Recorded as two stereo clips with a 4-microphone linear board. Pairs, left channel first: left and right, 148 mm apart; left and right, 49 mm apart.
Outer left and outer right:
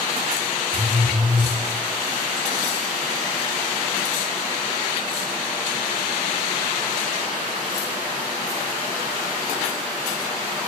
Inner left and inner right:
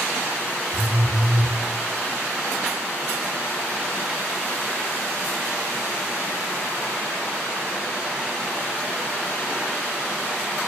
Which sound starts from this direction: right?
A phone buzzing, at 0.7 s.